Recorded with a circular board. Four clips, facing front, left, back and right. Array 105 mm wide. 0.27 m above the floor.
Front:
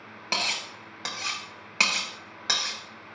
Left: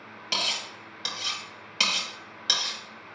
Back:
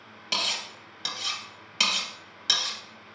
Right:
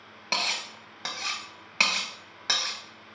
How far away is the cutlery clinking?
About 0.7 m.